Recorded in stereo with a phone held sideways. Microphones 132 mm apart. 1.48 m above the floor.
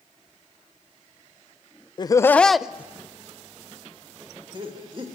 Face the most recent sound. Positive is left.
turn(degrees=-40)  # may be behind; listen again after turning